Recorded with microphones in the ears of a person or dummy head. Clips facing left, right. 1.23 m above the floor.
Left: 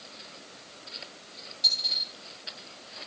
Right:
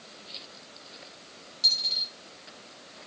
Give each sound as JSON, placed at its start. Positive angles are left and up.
{"t": 1.6, "sound": "a dropped coin", "side_deg": -40, "distance_m": 0.9}